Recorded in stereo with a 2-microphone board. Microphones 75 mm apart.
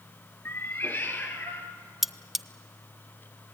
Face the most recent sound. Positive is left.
turn(degrees=-5)  # may be behind; listen again after turning